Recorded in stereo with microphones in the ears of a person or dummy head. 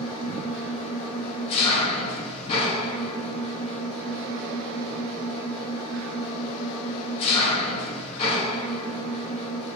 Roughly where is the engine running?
Left.